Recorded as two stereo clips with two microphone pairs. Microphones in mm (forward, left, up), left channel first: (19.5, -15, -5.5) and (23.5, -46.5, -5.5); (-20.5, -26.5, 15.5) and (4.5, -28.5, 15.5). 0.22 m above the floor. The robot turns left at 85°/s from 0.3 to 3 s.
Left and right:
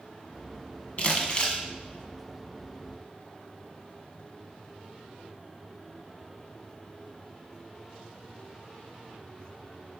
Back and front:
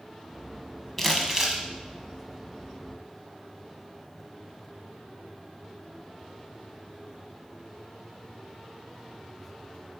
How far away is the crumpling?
About 1.3 m.